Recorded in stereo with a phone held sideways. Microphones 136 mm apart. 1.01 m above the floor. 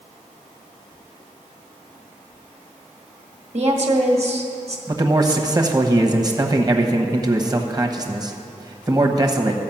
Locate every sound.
3.5 s a woman speaking: 50° right (ahead or behind), 1.6 m
4.9 s a man speaking: 30° right (ahead or behind), 1.0 m